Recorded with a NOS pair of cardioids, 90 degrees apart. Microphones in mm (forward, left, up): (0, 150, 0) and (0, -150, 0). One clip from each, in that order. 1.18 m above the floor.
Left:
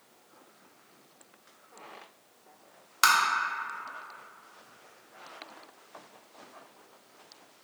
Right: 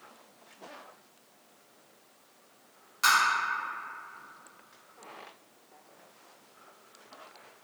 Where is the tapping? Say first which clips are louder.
Left 1 dB; 65° left, 0.9 m.